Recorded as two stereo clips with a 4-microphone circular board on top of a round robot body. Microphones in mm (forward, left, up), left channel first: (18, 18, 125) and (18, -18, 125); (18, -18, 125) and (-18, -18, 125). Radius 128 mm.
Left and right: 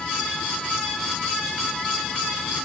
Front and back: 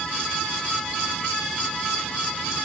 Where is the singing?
No singing in this recording.